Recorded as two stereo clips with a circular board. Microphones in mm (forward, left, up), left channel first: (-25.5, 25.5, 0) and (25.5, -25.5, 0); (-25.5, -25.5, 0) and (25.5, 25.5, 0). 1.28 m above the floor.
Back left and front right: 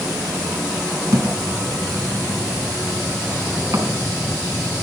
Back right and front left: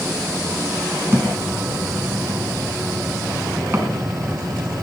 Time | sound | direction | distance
1.1 | a thud | 10° right | 4.5 m